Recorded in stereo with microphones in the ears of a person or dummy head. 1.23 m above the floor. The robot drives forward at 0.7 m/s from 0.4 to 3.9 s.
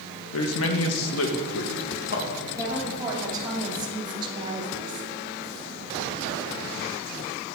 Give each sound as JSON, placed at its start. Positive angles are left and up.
{"t": 0.3, "sound": "a man speaking", "side_deg": 70, "distance_m": 1.4}
{"t": 2.5, "sound": "a woman speaking", "side_deg": -20, "distance_m": 3.0}